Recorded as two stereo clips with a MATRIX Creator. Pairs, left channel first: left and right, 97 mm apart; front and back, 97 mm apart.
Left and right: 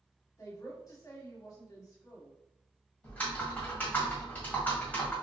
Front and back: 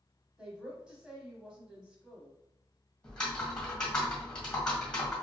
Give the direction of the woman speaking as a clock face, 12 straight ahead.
8 o'clock.